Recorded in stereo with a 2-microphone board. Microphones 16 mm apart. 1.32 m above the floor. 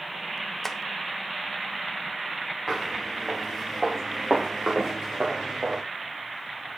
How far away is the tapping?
About 0.6 m.